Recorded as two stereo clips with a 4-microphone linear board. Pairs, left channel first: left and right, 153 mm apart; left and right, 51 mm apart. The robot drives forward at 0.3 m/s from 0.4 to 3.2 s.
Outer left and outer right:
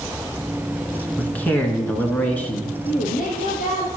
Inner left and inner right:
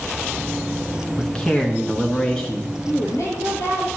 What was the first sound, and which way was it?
A man speaking, 10° left (ahead or behind).